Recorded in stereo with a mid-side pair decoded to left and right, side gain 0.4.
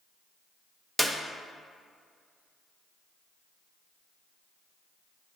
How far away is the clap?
About 0.8 m.